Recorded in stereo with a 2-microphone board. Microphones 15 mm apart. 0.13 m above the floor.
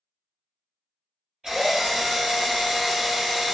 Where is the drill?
50° right (ahead or behind), 1.9 m.